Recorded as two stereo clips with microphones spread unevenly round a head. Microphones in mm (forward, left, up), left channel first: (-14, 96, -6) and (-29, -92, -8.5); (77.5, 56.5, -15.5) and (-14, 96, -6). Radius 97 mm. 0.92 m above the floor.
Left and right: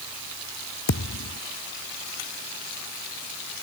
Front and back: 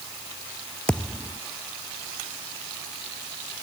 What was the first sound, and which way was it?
A thud, 60° left.